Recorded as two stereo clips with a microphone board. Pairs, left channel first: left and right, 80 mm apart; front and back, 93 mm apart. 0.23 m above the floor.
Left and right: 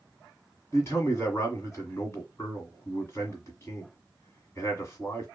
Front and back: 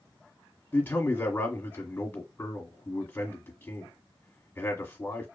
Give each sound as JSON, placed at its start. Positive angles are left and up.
{"t": 0.7, "sound": "a man speaking", "azimuth_deg": 60, "distance_m": 1.5}